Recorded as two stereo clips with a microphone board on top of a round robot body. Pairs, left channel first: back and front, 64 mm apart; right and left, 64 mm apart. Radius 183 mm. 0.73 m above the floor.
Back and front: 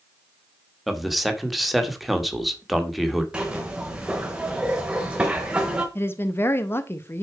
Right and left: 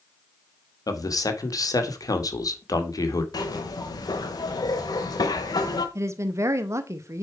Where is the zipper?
80° right, 0.9 m.